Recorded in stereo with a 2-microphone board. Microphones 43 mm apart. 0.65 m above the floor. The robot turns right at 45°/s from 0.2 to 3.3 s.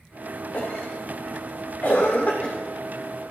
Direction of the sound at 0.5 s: 45° left (ahead or behind).